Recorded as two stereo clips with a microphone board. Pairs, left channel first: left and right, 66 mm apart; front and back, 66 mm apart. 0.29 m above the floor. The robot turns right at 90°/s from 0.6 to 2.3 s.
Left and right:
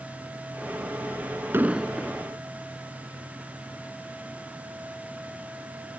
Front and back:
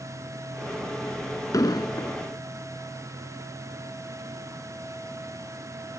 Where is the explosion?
35° right; by 2.2 s 25° left.